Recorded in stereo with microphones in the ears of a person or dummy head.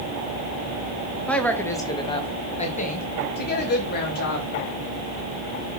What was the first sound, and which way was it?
A woman speaking, centre (ahead or behind).